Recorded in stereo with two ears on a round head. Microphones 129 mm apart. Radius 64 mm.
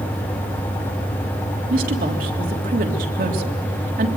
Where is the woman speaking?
65° right (ahead or behind), 3 m.